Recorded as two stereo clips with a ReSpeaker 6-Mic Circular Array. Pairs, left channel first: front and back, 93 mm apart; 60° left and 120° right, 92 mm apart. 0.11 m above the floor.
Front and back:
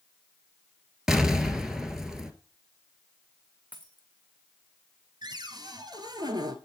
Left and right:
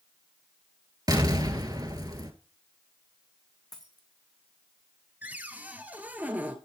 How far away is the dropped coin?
About 2.5 m.